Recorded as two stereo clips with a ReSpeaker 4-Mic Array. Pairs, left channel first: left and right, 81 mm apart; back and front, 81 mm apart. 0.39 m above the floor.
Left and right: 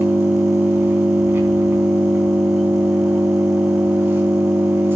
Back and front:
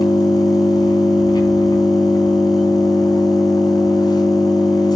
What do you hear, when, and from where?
0.0 s an engine running: 150° right, 3.5 m